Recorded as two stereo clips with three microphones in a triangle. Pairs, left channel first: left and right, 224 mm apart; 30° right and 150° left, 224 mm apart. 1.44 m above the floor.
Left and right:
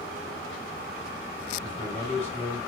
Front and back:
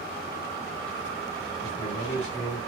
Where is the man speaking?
30° left, 2.5 m.